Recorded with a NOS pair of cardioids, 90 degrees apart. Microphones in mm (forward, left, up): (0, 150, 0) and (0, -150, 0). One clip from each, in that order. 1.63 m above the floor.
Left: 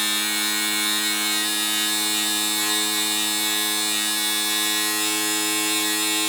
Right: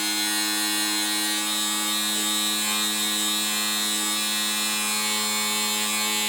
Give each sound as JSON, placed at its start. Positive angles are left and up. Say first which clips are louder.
{"t": 0.0, "sound": "a machine running", "louder": "left 2 dB", "azimuth_deg": 55, "distance_m": 1.1}